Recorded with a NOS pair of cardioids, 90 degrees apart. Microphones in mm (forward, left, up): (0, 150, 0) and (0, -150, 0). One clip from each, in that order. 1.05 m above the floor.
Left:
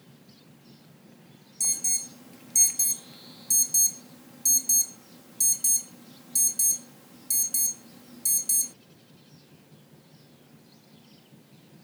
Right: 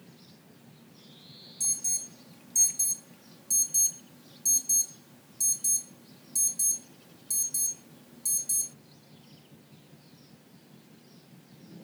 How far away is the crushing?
No crushing in this recording.